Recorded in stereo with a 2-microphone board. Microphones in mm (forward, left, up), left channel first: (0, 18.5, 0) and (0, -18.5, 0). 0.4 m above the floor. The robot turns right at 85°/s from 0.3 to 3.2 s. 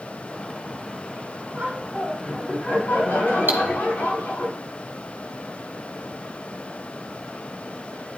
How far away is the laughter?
About 4 m.